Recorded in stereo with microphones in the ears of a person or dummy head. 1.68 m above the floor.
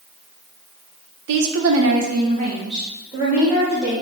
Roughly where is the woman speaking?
Right.